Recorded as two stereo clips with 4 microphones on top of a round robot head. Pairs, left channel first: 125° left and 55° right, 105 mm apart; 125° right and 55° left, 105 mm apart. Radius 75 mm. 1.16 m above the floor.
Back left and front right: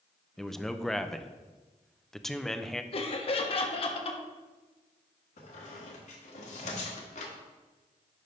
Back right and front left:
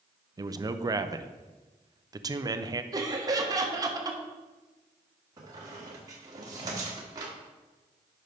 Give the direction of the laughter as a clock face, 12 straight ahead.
8 o'clock.